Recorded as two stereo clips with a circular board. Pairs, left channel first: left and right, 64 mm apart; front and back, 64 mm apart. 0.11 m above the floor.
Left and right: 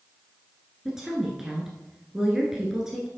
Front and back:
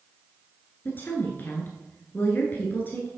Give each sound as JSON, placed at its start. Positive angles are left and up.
{"t": 0.8, "sound": "a woman speaking", "azimuth_deg": -15, "distance_m": 1.3}